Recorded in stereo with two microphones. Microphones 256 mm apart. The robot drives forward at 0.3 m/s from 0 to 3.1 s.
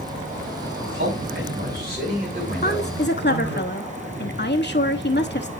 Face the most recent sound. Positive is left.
turn(degrees=45)  # may be behind; listen again after turning